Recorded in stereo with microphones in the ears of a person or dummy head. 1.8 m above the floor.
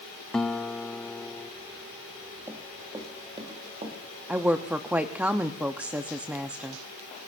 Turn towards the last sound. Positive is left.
turn(degrees=-10)  # may be behind; listen again after turning